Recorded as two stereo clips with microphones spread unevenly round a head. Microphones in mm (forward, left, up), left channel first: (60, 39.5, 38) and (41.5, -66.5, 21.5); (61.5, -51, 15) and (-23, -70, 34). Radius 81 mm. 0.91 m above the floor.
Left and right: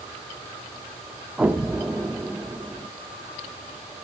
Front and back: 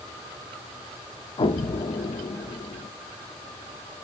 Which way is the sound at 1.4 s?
20° right.